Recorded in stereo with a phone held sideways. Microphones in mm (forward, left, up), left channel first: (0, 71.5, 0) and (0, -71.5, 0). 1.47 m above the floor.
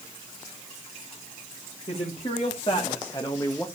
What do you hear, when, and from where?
1.9 s a man speaking: 45° left (ahead or behind), 3 m; by 3.7 s 10° left (ahead or behind), 1.3 m